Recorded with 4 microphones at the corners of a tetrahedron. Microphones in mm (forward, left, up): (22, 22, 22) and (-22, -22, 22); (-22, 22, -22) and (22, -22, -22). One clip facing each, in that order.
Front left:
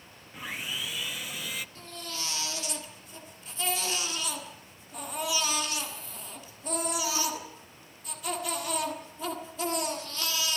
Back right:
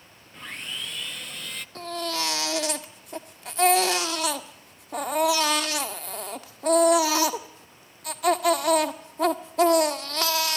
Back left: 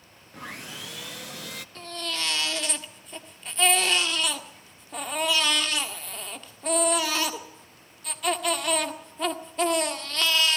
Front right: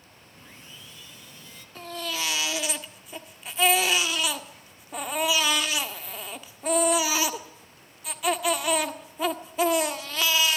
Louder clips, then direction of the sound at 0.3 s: Even, back left 11 dB; 130° left.